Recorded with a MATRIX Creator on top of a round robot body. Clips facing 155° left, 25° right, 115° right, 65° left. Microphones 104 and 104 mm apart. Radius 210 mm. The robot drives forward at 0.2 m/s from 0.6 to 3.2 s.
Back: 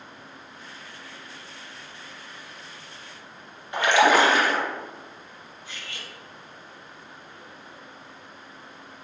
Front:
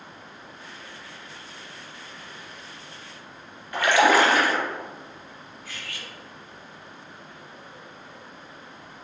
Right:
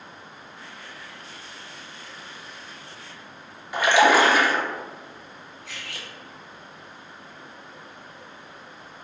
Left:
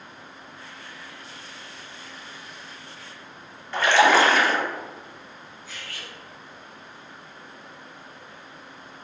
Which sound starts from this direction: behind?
A splash, at 3.7 s.